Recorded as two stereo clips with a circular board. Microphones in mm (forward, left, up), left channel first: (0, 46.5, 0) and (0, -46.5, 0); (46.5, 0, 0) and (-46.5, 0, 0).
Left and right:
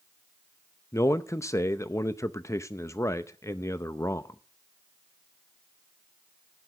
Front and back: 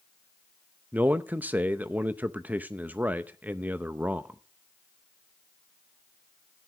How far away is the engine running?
No engine running in this recording.